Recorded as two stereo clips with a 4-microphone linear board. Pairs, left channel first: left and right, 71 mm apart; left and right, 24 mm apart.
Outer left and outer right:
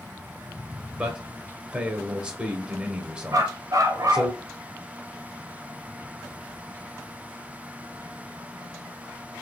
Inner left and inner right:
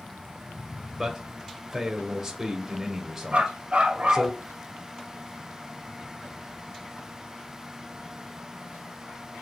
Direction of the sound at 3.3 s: 55° right (ahead or behind).